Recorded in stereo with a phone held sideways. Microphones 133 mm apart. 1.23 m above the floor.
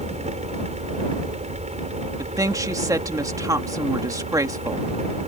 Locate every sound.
0.0 s a fan: 60° right (ahead or behind)
2.2 s a woman speaking: 25° right (ahead or behind)